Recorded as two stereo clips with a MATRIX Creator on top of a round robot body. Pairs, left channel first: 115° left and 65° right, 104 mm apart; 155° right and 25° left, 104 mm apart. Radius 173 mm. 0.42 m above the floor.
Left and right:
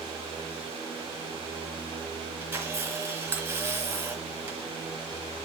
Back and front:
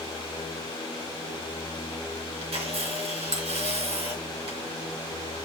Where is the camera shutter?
Straight ahead, 3.5 m.